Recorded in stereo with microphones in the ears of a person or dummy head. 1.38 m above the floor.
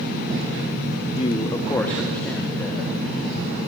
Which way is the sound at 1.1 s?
35° left (ahead or behind).